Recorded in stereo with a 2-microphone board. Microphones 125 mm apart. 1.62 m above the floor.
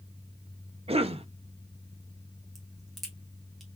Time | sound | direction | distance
0.9 | a cough | 50° right (ahead or behind) | 0.8 m
2.5 | a crack | centre (ahead or behind) | 1.5 m